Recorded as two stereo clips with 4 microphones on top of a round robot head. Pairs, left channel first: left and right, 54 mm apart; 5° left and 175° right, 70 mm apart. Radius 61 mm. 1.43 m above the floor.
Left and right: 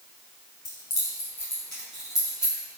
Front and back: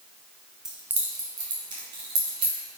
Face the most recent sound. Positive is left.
turn(degrees=-170)